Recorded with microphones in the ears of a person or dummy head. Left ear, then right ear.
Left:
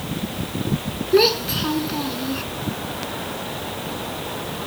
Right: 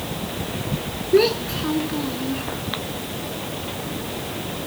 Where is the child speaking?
15° left (ahead or behind).